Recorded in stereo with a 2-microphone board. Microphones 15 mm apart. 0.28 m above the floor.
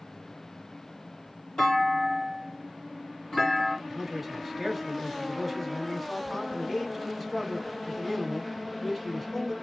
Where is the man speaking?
10° left (ahead or behind), 1.5 m.